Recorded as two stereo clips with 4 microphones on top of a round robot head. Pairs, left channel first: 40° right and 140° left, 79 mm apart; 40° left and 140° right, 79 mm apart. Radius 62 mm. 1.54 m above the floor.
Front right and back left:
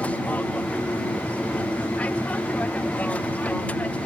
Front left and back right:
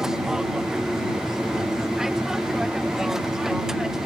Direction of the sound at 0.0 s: 70° right.